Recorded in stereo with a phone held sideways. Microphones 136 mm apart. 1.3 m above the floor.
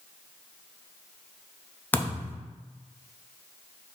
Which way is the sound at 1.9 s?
15° left (ahead or behind).